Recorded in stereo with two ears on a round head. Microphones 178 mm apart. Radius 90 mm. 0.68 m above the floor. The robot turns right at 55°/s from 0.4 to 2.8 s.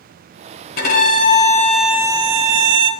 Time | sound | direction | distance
0.8 | a violin | 125° left | 2 m